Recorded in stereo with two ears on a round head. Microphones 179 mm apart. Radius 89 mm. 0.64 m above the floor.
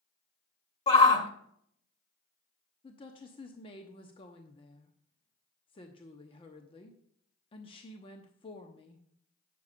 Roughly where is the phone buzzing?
I don't hear a phone buzzing.